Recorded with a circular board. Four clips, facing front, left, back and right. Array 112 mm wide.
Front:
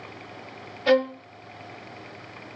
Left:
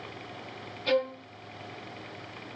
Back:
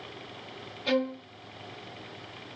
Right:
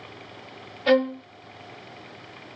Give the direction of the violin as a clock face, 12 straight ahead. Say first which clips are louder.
Right 7 dB, front 7 dB; 2 o'clock.